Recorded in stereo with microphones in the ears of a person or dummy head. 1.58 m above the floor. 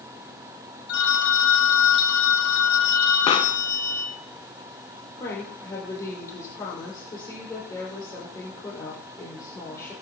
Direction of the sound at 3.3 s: 30° left (ahead or behind).